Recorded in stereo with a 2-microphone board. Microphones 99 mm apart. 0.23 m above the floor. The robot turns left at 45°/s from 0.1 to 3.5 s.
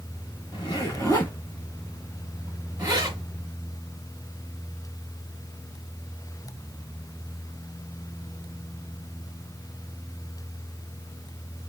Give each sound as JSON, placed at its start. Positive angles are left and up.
{"t": 0.5, "sound": "a zipper", "side_deg": 55, "distance_m": 2.5}